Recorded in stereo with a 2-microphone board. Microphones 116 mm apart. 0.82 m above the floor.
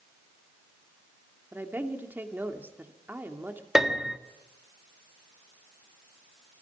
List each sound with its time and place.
1.5 s a woman speaking: 15° right (ahead or behind), 2.5 m
3.8 s a piano: centre (ahead or behind), 1.6 m